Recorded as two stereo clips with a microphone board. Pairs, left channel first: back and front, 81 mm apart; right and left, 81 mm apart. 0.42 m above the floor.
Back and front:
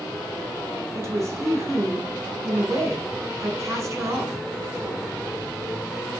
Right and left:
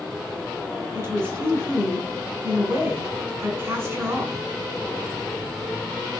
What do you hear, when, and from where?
0.9 s a woman speaking: 45° left, 2 m